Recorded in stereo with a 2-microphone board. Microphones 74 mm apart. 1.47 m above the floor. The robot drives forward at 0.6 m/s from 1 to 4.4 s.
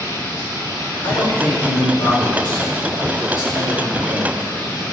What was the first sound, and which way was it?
Running water, 70° left (ahead or behind).